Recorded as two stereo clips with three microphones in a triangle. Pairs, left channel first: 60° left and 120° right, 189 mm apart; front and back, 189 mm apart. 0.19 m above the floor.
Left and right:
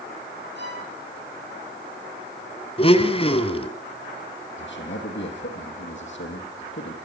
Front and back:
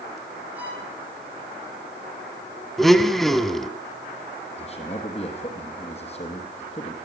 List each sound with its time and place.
0.6 s a violin: 100° right, 6.5 m
2.8 s a blender: 85° left, 1.4 m
4.6 s a man speaking: 60° left, 5.5 m